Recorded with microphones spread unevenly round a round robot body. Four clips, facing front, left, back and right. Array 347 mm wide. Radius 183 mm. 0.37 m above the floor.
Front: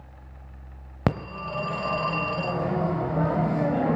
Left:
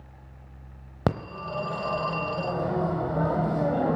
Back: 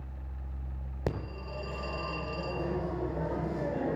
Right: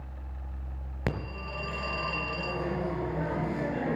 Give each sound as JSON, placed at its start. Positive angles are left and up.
{"t": 1.1, "sound": "a phone ringing", "azimuth_deg": 25, "distance_m": 1.3}